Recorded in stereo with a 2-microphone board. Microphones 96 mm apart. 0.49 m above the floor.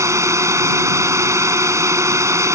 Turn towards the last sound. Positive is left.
turn(degrees=-30)  # may be behind; listen again after turning